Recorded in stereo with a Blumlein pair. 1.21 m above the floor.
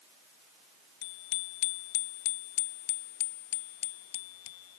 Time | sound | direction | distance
1.0 | a bicycle bell | 45° left | ?